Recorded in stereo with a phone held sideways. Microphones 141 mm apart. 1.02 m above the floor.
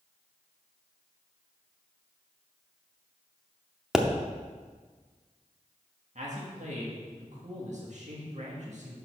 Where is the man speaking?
60° right (ahead or behind), 1.7 m.